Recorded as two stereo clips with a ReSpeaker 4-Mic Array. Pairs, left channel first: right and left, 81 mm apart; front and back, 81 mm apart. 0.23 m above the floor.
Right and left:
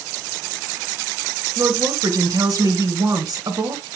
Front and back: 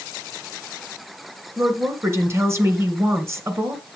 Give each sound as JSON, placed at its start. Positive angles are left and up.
{"t": 1.6, "sound": "a woman speaking", "azimuth_deg": 125, "distance_m": 2.5}